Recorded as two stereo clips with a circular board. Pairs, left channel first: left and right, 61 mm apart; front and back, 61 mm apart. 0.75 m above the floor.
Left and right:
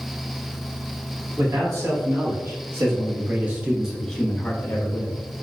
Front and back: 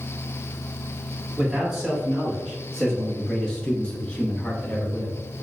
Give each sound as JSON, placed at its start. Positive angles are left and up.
{"t": 1.4, "sound": "a man speaking", "azimuth_deg": -90, "distance_m": 1.9}